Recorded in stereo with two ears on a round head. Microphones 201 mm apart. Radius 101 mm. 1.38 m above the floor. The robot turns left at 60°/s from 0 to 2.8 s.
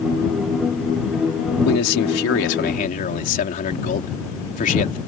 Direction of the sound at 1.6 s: 105° left.